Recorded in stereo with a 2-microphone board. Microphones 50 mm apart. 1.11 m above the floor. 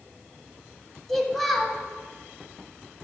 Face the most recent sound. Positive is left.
turn(degrees=5)  # may be behind; listen again after turning